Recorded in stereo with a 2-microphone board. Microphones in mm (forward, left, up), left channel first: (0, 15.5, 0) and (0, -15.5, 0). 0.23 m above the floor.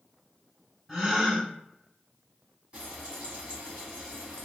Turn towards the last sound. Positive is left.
turn(degrees=-40)  # may be behind; listen again after turning